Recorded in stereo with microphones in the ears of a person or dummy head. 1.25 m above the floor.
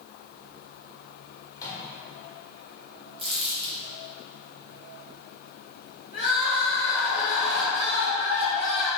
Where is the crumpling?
25° right (ahead or behind), 1.6 m.